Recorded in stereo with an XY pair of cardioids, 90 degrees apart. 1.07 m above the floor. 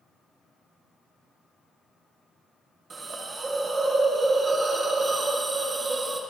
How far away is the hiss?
About 1.2 m.